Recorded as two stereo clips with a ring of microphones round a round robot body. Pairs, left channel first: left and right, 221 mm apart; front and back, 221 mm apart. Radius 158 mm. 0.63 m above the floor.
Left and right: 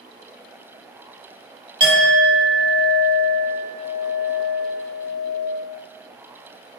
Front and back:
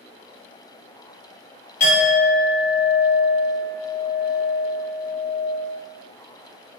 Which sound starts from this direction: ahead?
A clink, at 1.8 s.